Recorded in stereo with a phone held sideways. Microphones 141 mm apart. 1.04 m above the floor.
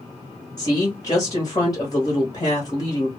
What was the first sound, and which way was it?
A woman speaking, 35° left (ahead or behind).